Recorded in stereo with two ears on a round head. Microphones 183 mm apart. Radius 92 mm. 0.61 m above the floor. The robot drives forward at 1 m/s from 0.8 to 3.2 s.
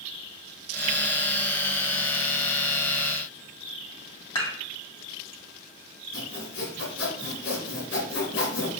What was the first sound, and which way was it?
Dishes clattering, 25° left (ahead or behind).